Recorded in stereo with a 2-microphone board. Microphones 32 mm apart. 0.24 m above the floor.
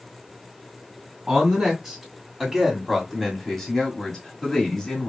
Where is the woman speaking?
10° right (ahead or behind), 2.5 m; by 5.1 s 25° left (ahead or behind), 1.8 m.